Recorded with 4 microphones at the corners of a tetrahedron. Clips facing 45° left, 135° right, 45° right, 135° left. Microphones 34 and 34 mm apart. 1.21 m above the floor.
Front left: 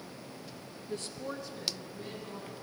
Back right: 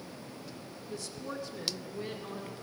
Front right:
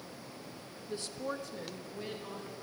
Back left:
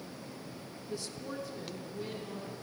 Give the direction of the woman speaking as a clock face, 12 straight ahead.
11 o'clock.